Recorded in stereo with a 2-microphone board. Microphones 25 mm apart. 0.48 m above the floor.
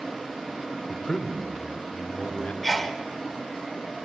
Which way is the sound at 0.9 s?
40° left (ahead or behind).